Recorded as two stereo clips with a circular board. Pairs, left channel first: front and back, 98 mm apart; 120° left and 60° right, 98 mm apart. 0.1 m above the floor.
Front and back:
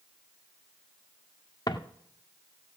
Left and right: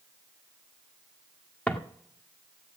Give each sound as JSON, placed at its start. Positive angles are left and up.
{"t": 1.7, "sound": "footsteps", "azimuth_deg": 45, "distance_m": 1.8}